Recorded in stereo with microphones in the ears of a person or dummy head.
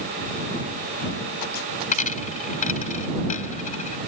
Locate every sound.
1.9 s a dropped coin: 40° left (ahead or behind)